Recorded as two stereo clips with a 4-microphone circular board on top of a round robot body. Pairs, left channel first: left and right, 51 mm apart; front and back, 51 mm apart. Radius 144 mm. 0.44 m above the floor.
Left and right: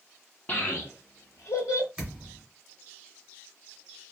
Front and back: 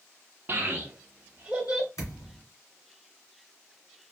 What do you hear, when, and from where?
0.5 s a child speaking: 140° left, 0.7 m; by 1.9 s 100° left, 1.5 m
2.0 s a thud: 15° right, 1.9 m